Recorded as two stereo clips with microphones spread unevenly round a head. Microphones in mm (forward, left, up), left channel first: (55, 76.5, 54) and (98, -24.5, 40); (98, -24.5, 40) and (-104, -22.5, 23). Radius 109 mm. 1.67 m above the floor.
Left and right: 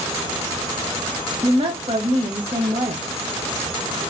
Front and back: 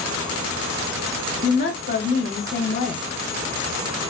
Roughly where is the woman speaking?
Ahead right.